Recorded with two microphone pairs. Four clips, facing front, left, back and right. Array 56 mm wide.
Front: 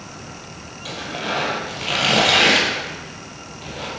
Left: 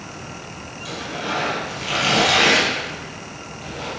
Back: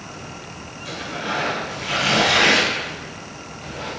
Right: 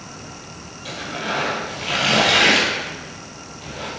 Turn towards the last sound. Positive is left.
turn(degrees=-10)